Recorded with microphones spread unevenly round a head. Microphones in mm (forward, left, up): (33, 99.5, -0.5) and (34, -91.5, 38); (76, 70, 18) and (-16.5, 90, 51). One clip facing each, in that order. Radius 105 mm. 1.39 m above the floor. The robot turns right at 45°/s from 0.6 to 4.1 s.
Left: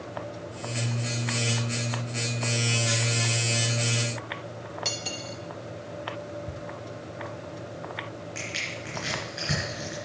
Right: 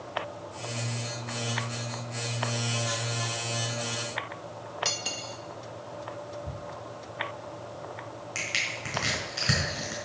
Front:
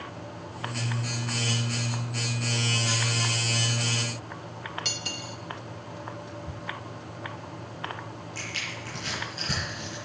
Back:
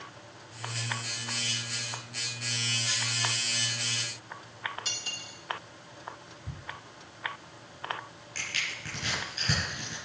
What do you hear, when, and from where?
4.8 s cutlery clinking: 5° right, 1.2 m
6.5 s ticking: 110° right, 6 m
8.3 s crushing: 135° right, 4.5 m